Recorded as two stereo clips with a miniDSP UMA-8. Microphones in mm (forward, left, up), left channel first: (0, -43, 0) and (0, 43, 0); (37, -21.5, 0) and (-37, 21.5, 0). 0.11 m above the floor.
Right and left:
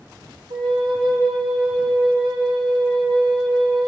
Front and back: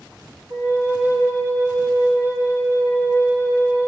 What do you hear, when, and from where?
0.5 s a flute: 90° left, 3 m